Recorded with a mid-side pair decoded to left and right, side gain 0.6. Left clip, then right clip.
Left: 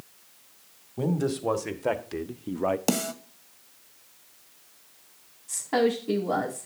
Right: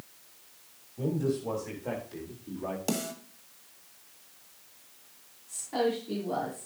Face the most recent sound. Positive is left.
turn(degrees=65)